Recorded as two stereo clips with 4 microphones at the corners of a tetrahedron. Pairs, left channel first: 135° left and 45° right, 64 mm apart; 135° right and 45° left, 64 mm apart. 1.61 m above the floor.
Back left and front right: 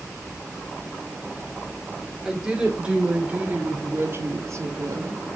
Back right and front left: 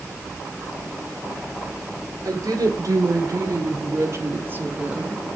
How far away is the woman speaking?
About 4 m.